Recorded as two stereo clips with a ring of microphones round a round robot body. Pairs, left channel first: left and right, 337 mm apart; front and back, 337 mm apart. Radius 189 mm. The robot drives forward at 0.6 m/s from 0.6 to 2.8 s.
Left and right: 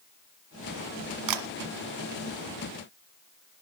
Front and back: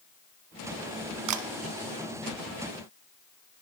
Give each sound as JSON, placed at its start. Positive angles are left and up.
{"t": 1.3, "sound": "a camera shutter", "azimuth_deg": -130, "distance_m": 1.4}